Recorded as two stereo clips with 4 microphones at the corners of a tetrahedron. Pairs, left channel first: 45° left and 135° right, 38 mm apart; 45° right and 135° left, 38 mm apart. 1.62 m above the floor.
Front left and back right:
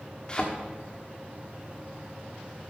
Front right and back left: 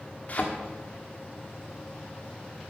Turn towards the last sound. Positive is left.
turn(degrees=-10)